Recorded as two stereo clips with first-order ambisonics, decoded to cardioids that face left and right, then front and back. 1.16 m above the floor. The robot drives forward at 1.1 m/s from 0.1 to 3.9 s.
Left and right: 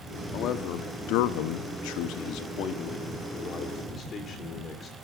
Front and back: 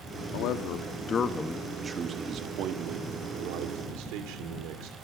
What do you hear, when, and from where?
0.3 s a man speaking: 35° left, 1.8 m; by 5.0 s 155° left, 3 m